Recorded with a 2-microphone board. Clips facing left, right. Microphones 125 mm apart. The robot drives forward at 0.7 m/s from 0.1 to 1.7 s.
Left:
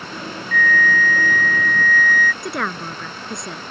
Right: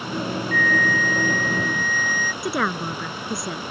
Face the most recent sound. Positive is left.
turn(degrees=-5)  # may be behind; listen again after turning